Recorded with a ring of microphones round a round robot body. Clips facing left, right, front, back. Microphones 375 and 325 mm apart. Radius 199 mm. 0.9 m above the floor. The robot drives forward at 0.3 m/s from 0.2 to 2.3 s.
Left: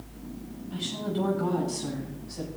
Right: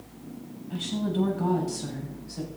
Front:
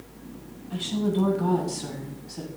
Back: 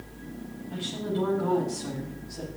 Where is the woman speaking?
55° right, 8.5 m; by 2.5 s 60° right, 8 m.